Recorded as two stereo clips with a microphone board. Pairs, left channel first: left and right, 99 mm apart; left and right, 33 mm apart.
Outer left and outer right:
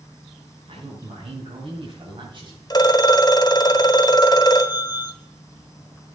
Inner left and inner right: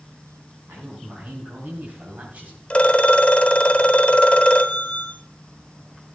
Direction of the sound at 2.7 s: 35° left (ahead or behind).